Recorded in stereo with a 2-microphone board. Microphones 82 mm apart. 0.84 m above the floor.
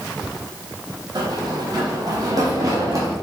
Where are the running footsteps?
65° right (ahead or behind), 2 m; by 3.1 s 40° right (ahead or behind), 3 m.